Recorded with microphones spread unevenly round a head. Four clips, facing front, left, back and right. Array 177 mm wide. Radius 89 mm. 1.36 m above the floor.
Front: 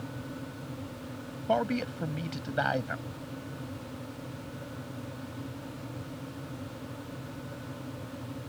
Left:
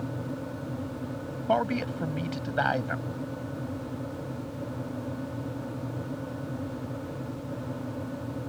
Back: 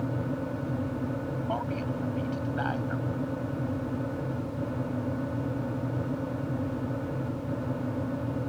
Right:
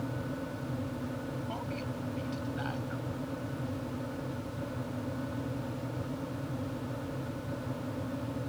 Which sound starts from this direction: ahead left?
A man speaking, at 1.5 s.